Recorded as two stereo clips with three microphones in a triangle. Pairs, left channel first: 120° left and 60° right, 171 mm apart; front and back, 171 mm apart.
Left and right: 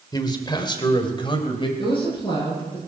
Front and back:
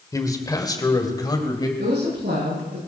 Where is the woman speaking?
Straight behind, 8.5 m.